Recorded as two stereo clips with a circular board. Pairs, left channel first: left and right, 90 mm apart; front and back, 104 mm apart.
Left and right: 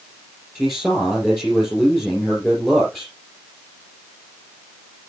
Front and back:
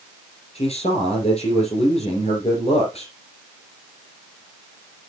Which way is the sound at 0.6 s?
5° left.